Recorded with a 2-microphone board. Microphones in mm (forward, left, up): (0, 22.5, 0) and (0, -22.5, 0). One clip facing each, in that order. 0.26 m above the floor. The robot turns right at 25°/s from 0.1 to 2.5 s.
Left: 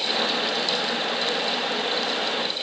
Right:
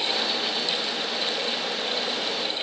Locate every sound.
Only background noise.